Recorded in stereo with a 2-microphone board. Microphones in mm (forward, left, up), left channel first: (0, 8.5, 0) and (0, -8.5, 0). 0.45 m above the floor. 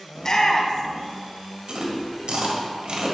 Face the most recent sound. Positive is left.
turn(degrees=-65)  # may be behind; listen again after turning